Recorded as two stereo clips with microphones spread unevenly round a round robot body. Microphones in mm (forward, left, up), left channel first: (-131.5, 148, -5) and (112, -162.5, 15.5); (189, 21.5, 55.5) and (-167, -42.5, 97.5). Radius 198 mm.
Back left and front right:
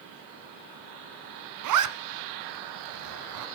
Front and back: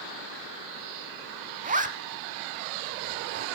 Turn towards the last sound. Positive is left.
turn(degrees=-100)